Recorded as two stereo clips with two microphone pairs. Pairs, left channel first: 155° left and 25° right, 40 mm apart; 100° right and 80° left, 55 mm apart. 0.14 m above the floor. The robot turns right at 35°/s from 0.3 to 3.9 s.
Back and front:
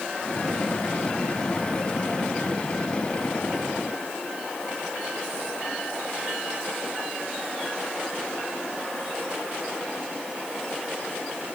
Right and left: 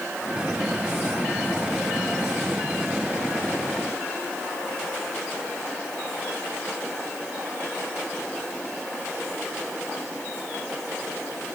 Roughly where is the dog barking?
I don't hear a dog barking.